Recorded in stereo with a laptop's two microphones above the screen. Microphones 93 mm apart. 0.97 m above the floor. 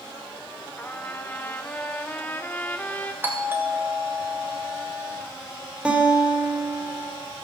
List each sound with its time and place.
0.8 s a trumpet: 20° left (ahead or behind), 0.9 m
3.2 s a doorbell: 20° right (ahead or behind), 2 m
5.8 s a guitar: 10° right (ahead or behind), 3.5 m